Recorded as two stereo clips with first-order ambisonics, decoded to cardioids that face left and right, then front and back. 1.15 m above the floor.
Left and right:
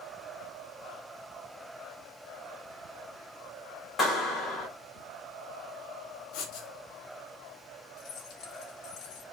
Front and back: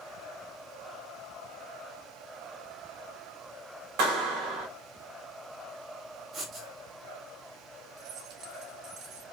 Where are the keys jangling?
135° left, 3 m.